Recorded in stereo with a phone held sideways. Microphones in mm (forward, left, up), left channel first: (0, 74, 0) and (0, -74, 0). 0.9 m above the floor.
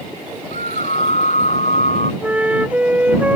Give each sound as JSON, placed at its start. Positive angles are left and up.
{"t": 0.5, "sound": "a scream", "side_deg": 50}
{"t": 2.2, "sound": "a flute", "side_deg": -10}